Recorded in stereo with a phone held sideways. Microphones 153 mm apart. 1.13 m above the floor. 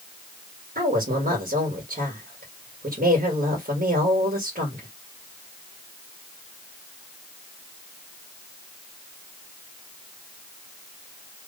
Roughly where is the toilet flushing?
I don't hear a toilet flushing.